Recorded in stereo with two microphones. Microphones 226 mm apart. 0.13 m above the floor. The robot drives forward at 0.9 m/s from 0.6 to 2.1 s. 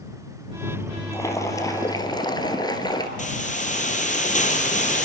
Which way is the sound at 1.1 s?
10° left (ahead or behind).